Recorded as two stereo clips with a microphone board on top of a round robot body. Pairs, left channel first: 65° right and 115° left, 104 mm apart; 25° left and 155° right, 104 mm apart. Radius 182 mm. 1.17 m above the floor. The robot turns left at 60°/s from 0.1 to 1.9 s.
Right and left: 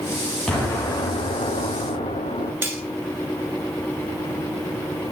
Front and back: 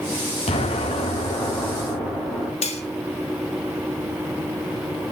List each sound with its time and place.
0.5 s an explosion: 20° left, 9 m; by 2.5 s 65° right, 9 m
2.6 s cutlery clinking: 40° left, 2.5 m